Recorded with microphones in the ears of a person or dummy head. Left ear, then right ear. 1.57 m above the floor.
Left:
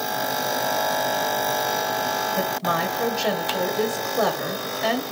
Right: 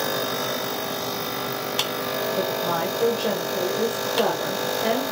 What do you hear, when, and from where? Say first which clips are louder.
2.4 s a woman speaking: left 1 dB; 65° left (ahead or behind), 1.2 m